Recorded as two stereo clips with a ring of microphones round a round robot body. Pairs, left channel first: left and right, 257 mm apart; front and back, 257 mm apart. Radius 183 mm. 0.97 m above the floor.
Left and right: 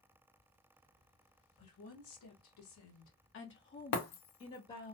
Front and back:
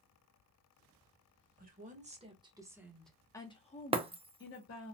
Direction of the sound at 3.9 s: 105° left.